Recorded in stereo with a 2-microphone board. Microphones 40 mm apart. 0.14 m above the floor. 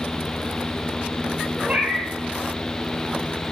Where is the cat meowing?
35° right (ahead or behind), 0.8 m.